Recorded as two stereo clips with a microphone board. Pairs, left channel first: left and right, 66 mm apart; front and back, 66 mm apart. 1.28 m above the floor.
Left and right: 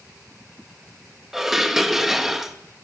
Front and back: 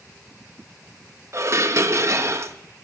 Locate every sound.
1.3 s dishes clattering: 175° right, 0.7 m